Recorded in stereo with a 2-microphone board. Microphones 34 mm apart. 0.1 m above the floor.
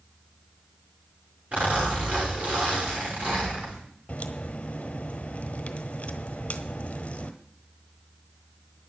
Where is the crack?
35° left (ahead or behind), 1.1 m.